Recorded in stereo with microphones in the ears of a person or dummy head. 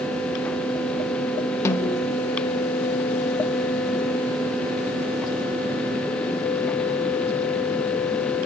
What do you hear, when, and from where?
1.6 s a snare drum: 20° left (ahead or behind), 1.8 m